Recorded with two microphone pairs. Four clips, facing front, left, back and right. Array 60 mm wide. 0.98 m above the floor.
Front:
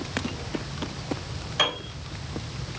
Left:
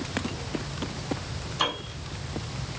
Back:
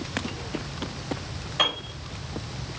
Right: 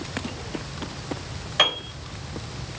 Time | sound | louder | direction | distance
1.6 | a piano | right 6 dB, even | 80° right | 5 m